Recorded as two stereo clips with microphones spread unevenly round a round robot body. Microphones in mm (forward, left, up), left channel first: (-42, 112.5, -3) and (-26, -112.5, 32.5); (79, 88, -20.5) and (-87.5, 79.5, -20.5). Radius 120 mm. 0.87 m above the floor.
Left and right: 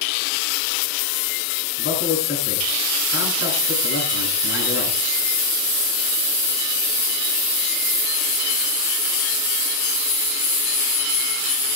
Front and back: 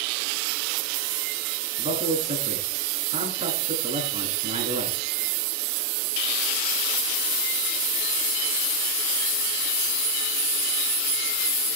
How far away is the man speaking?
About 9 m.